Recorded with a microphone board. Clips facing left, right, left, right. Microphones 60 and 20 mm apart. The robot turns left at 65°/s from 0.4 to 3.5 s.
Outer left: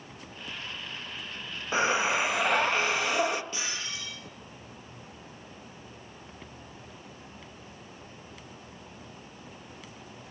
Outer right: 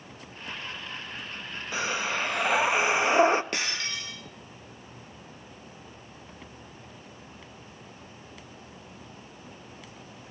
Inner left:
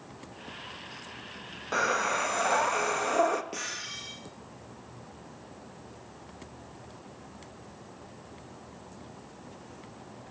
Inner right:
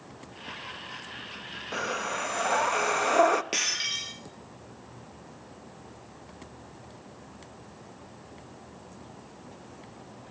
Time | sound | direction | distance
1.7 | breathing | 50° left | 0.7 m
3.5 | breaking glass | 70° right (ahead or behind) | 2.5 m